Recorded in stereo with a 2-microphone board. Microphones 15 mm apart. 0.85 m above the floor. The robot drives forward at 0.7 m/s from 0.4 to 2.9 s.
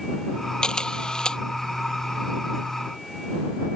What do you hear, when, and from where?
0.6 s a camera shutter: 75° left (ahead or behind); by 1.4 s 70° left (ahead or behind)